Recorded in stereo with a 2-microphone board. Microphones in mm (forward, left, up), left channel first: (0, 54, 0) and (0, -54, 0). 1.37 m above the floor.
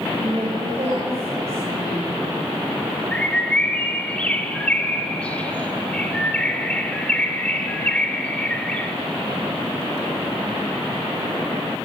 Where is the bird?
10° left (ahead or behind), 2.0 m.